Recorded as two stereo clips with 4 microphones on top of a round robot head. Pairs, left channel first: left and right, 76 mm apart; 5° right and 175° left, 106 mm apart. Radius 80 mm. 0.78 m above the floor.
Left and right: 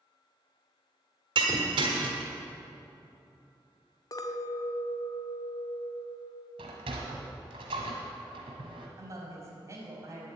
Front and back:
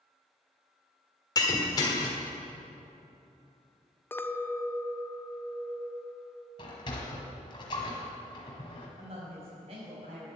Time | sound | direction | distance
1.4 | breaking glass | 65° right | 1.4 m
4.1 | a clink | 65° left | 0.7 m
6.6 | a sliding door | 60° right | 1.3 m
9.0 | a woman speaking | 140° right | 4.5 m